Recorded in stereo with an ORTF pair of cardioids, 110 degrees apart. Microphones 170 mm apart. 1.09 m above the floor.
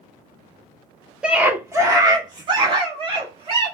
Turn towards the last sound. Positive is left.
turn(degrees=-35)